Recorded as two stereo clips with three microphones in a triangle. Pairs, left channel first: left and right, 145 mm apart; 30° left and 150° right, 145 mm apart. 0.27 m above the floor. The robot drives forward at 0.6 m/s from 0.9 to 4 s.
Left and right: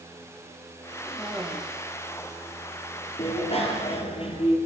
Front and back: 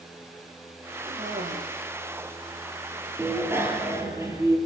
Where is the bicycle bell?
135° left, 4.5 m; by 4.6 s 140° left, 4.5 m.